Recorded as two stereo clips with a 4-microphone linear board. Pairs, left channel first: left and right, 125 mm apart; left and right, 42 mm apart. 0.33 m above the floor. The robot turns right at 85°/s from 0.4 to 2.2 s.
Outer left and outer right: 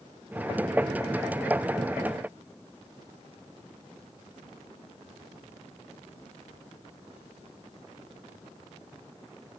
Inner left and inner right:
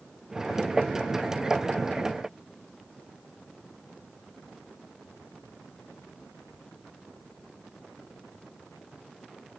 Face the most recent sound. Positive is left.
No sound to turn to.